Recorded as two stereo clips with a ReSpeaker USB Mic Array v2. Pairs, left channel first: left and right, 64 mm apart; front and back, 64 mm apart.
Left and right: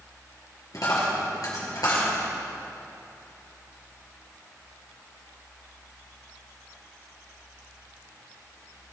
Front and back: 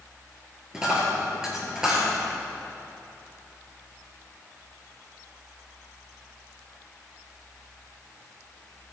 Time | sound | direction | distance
0.7 | a dropped coin | 100° left | 4.5 m